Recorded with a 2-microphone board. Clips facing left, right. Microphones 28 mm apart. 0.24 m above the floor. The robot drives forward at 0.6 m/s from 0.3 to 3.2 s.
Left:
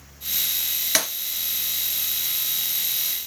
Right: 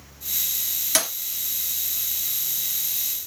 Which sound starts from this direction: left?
Breaking glass, at 0.9 s.